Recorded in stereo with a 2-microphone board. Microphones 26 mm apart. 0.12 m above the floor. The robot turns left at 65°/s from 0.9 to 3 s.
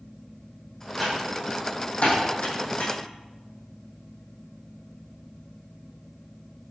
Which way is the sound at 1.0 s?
5° right (ahead or behind).